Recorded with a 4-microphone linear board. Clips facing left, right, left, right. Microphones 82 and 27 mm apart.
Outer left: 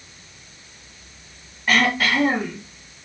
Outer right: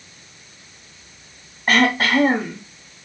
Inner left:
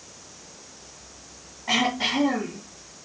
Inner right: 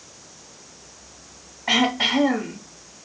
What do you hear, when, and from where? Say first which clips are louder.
1.7 s throat clearing: outer right 2 dB, inner right 4 dB; 50° right (ahead or behind), 3 m